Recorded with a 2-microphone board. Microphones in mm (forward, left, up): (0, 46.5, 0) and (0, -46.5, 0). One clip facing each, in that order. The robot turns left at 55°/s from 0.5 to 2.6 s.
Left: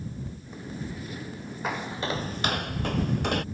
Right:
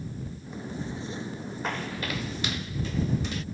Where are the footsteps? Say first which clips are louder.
Left 3 dB; 5° left (ahead or behind); by 3.5 s 55° left (ahead or behind).